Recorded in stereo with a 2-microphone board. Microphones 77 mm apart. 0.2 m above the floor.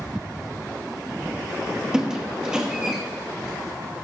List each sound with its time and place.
1.9 s a squeak: 10° right (ahead or behind), 1.1 m